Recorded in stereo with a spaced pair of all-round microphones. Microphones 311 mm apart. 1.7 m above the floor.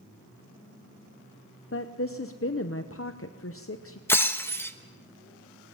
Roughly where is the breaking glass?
Centre.